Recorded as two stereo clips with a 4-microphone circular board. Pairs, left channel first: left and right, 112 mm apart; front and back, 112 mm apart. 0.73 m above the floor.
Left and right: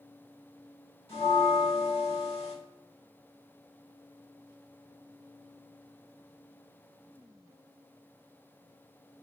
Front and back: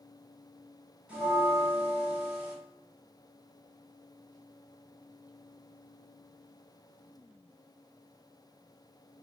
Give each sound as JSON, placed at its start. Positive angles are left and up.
{"t": 1.1, "sound": "a bell", "azimuth_deg": 100, "distance_m": 1.6}